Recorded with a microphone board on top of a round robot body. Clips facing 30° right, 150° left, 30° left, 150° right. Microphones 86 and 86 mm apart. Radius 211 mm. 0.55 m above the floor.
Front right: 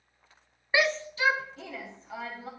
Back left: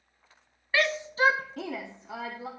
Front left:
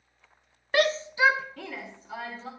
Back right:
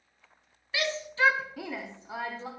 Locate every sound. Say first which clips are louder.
0.7 s a shout: even, front left 6 dB; 40° left, 0.7 m; by 2.5 s 145° left, 1.9 m